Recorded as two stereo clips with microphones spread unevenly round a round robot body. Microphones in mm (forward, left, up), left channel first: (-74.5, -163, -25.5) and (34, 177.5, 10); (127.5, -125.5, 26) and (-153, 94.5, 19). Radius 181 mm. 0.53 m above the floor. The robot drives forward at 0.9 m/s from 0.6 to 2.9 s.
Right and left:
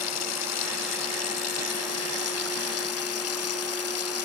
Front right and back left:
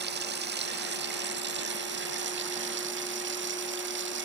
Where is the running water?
155° right; by 4.3 s 160° right.